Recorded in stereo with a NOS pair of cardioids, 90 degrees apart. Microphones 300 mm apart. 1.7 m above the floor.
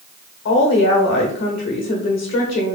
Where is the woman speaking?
55° left, 1.3 m.